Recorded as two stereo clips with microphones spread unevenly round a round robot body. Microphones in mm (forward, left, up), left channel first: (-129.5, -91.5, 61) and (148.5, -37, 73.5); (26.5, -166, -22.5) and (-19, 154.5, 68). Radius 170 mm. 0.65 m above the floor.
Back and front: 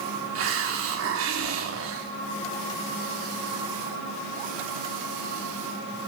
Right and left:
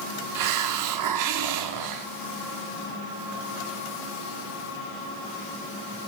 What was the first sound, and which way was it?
A hiss, 60° left.